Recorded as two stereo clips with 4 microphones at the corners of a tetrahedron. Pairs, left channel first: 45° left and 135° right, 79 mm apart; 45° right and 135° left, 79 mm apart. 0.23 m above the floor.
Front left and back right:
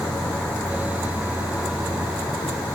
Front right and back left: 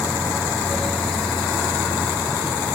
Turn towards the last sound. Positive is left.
turn(degrees=70)